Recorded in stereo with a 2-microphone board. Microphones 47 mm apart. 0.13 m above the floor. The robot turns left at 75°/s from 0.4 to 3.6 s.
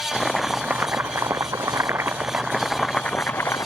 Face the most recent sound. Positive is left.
turn(degrees=110)